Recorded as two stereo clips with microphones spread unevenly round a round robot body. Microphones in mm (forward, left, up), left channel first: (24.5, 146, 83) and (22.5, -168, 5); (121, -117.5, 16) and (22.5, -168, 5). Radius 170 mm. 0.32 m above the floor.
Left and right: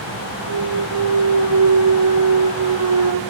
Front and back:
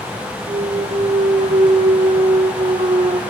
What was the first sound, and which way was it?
A clunk, 125° right.